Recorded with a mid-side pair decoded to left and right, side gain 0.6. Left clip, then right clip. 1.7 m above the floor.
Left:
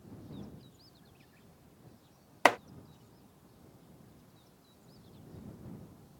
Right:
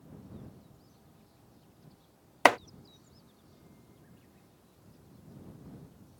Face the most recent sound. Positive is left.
turn(degrees=-20)